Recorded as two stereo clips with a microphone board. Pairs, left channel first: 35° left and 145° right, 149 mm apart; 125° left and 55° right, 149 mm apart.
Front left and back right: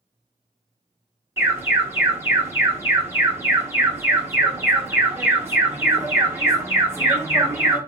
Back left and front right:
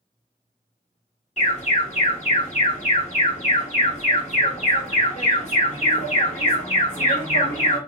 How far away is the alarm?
About 1.2 m.